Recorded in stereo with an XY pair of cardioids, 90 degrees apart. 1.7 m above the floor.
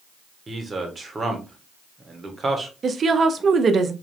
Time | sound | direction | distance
0.5 | a man speaking | 30° right | 1.6 m
2.8 | a woman speaking | 50° right | 0.8 m